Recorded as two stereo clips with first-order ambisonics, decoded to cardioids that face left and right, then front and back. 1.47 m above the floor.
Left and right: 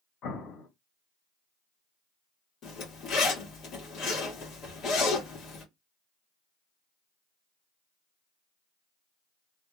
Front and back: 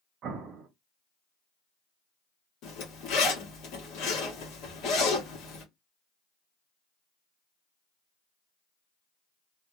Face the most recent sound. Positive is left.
turn(degrees=35)